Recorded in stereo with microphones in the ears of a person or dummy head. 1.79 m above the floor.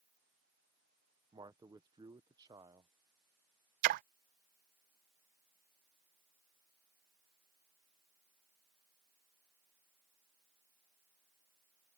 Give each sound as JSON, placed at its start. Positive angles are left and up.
{"t": 1.3, "sound": "a man speaking", "side_deg": -25}
{"t": 3.8, "sound": "a splash", "side_deg": -45}